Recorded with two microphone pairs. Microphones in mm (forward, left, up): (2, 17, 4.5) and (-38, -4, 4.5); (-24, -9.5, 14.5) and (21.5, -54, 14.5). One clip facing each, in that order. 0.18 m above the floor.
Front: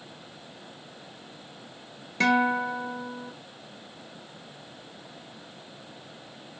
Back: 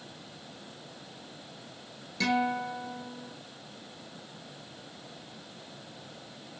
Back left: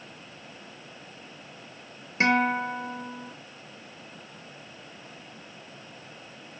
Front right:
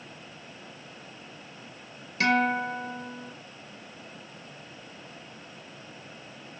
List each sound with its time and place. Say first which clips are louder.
2.2 s a guitar: front 5 dB, back left 1 dB; 75° left, 0.6 m